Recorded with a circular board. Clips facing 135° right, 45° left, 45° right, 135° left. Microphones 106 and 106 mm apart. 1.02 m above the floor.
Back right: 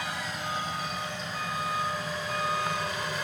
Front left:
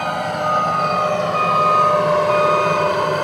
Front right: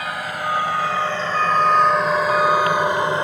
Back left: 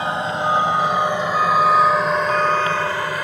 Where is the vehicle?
75° left; by 3.2 s 20° left.